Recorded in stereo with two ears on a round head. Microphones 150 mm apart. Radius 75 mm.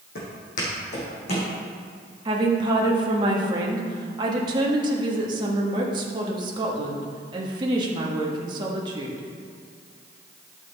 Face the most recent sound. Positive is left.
turn(degrees=-25)  # may be behind; listen again after turning